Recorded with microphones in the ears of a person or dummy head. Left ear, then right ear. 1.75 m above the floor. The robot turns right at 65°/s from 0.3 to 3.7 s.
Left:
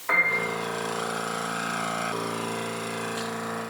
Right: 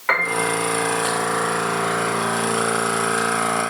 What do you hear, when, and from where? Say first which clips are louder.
0.1 s a piano: right 3 dB; 75° right (ahead or behind), 3.5 m; by 0.4 s 70° right (ahead or behind), 3.5 m